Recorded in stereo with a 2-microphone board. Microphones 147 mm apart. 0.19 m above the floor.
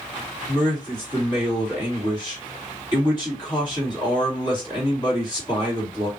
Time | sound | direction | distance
0.5 | a man speaking | 35° left (ahead or behind) | 2 m